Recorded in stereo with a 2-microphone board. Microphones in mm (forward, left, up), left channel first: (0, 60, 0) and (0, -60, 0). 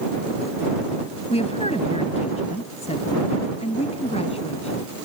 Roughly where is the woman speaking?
Left.